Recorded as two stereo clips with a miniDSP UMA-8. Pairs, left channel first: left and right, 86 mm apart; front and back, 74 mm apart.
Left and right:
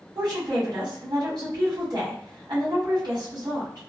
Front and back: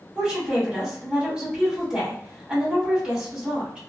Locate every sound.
0.1 s a woman speaking: 105° right, 1.6 m